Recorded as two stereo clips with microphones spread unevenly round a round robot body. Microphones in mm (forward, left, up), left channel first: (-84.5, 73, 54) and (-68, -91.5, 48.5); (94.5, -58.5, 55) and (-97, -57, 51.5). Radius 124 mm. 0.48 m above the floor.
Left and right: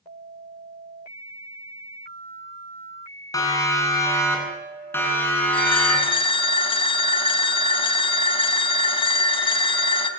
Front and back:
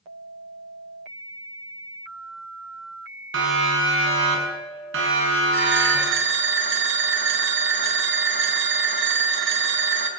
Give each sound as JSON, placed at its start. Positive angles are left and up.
{"t": 3.3, "sound": "a siren", "azimuth_deg": 165, "distance_m": 8.5}
{"t": 5.5, "sound": "a phone ringing", "azimuth_deg": 150, "distance_m": 3.5}